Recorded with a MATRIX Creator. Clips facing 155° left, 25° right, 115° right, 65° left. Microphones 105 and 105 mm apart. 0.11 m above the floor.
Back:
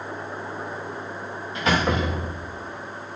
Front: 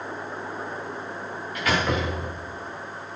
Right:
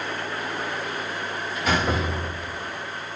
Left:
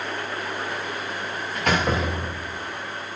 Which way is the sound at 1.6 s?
95° left.